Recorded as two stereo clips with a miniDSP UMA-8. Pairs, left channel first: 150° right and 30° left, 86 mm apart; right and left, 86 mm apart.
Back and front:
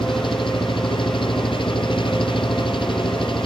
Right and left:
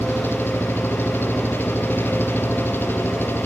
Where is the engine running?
155° right.